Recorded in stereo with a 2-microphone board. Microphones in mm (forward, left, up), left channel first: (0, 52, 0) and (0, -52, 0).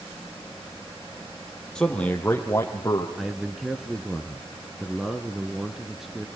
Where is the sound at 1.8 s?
10° left (ahead or behind), 5 m; by 3.1 s 35° left (ahead or behind), 4.5 m.